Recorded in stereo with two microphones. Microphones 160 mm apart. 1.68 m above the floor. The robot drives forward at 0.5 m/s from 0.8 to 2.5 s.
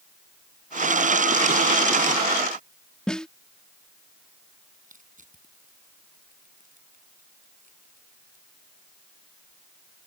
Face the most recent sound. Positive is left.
turn(degrees=-55)  # may be behind; listen again after turning